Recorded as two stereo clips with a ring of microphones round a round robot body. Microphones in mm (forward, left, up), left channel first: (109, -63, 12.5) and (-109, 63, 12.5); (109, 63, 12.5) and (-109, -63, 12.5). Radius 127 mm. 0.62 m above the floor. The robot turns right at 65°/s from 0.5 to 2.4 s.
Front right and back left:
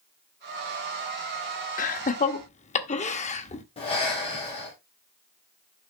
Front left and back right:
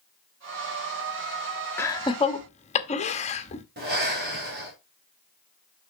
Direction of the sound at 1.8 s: 40° right.